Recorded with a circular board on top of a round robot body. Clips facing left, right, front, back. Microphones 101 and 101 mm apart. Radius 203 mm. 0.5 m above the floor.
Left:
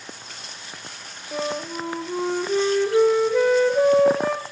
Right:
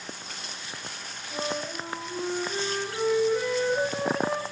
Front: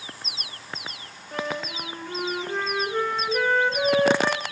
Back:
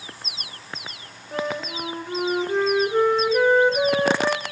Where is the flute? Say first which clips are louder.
Left 4 dB, back 3 dB; 105° left, 0.9 m.